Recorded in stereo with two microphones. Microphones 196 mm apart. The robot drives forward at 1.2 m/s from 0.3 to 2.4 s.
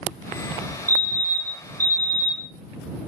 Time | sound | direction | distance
0.9 | a fire alarm | 15° right (ahead or behind) | 2 m